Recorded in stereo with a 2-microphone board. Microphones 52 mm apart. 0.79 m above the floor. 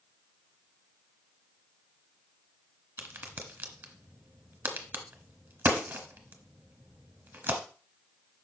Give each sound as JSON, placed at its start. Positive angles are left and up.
{"t": 3.0, "sound": "a crack", "side_deg": -45, "distance_m": 1.2}